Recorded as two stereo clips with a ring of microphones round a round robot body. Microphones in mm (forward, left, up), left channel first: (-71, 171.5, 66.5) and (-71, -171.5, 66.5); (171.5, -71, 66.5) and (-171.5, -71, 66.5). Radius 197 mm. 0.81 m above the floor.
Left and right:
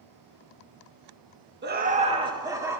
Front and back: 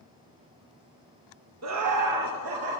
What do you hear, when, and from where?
1.6 s laughter: 145° right, 1.4 m; by 2.8 s 170° right, 3 m